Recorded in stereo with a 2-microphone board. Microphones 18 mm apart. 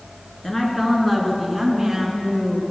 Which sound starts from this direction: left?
A woman speaking, at 0.4 s.